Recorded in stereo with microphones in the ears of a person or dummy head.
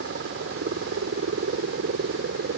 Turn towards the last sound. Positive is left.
turn(degrees=-70)  # may be behind; listen again after turning